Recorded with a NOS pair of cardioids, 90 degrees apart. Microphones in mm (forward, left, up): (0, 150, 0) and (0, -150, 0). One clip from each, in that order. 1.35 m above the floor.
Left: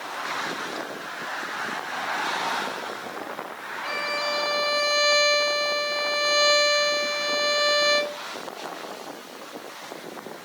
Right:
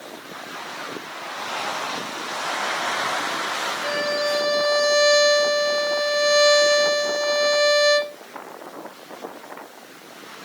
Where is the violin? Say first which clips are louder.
Right 2 dB; 20° right, 1.9 m.